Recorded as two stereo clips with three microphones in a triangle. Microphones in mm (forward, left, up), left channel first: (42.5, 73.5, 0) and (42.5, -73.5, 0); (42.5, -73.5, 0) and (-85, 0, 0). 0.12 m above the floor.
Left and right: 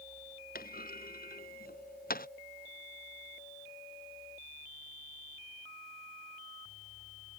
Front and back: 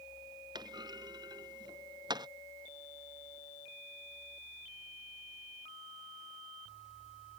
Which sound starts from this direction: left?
A clunk, at 0.6 s.